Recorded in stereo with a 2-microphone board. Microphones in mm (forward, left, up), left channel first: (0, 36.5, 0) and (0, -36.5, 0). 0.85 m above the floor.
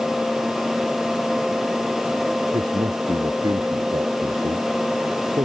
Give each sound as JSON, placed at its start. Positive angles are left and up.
{"t": 2.5, "sound": "a man speaking", "side_deg": -75}